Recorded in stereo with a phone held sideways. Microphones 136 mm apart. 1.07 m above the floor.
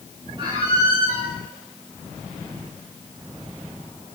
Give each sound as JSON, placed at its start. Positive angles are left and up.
{"t": 0.4, "sound": "a squeak", "side_deg": -35, "distance_m": 5.5}